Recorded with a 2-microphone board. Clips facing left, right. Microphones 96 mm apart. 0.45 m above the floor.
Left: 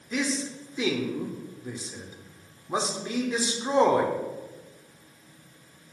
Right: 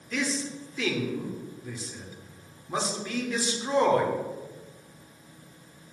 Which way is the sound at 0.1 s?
20° left (ahead or behind).